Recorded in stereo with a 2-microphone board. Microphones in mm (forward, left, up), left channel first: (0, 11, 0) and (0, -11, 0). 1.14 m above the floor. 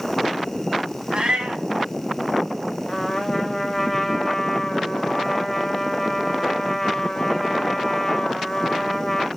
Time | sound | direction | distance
1.1 | a cat meowing | 55° right (ahead or behind) | 1.6 m
2.9 | a trumpet | 10° left (ahead or behind) | 2.0 m